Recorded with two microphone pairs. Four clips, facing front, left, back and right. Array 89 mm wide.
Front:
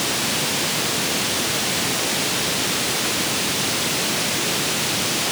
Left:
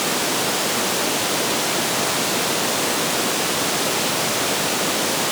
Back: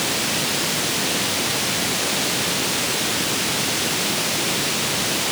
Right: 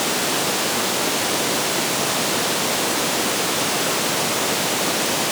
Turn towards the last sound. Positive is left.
No sound to turn to.